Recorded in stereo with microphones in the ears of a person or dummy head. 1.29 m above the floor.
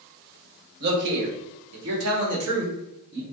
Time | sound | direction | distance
0.8 | a man speaking | 55° right (ahead or behind) | 1.0 m